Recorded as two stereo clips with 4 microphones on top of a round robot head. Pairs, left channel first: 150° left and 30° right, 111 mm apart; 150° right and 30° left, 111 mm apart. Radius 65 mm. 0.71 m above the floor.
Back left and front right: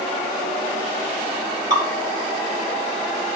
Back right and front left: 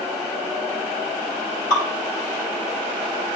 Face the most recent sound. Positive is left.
turn(degrees=155)